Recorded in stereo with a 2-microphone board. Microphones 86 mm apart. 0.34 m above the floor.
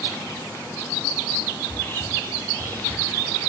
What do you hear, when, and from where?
1.6 s whispering: 25° left (ahead or behind), 1.3 m